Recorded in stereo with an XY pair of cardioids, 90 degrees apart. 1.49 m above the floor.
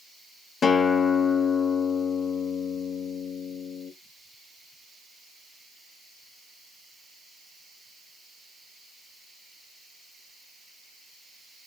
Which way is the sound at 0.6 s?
50° left.